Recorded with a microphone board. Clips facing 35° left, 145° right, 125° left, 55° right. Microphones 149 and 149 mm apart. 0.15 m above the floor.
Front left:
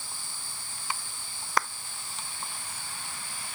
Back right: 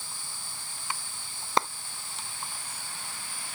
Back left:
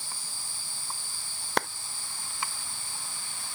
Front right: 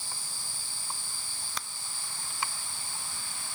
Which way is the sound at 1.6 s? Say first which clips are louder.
Back right 2 dB, back left 14 dB; 150° left.